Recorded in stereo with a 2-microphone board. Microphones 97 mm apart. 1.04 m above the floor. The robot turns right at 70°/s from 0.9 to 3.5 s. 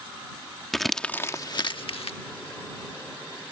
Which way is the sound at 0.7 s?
Centre (ahead or behind).